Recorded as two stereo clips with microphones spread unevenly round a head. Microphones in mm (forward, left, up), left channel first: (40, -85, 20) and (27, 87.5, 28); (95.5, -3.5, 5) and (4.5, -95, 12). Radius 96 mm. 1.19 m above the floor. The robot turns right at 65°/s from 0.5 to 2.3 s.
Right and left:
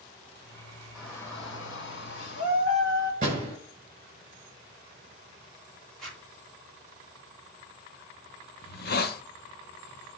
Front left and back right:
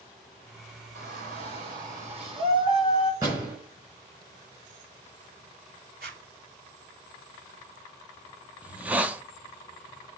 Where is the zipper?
170° right, 3.5 m.